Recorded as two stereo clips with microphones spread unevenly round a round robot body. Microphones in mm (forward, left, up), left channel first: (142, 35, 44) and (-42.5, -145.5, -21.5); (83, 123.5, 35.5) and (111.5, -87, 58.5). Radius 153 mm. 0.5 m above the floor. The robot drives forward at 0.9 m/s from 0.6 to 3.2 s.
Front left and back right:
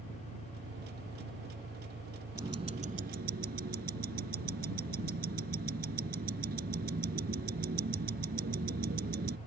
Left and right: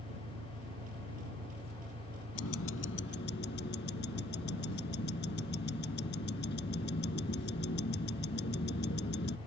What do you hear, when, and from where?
0.0 s an engine running: 75° right; by 9.5 s 90° right
2.4 s ticking: 140° left; by 9.4 s 155° left